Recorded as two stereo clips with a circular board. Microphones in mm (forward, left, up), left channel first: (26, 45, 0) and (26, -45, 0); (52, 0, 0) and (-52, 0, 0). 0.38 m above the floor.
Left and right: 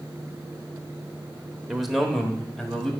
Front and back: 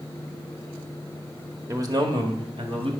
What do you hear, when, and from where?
1.7 s a man speaking: 175° right, 1.0 m; by 2.9 s 175° left, 2 m